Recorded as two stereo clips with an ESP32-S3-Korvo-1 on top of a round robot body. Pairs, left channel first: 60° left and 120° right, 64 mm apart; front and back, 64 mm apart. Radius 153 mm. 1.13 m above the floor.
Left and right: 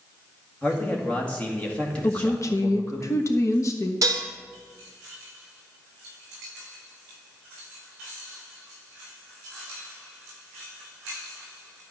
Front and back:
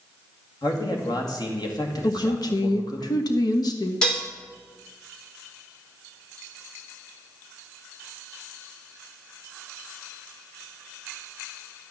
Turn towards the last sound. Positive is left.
turn(degrees=-80)